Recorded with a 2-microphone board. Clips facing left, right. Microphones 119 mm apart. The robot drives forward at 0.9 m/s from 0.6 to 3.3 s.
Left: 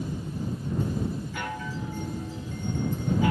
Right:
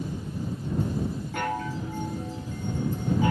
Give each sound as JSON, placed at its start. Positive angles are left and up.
{"t": 1.3, "sound": "a chime", "side_deg": -50, "distance_m": 1.8}